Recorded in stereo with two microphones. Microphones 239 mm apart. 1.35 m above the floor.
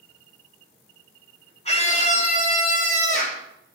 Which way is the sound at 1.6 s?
30° left (ahead or behind).